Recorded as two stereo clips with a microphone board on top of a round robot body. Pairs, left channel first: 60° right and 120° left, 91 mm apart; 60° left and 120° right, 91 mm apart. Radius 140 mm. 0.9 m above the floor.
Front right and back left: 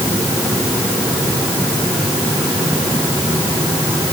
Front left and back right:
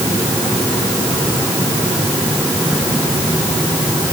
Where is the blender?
I don't hear a blender.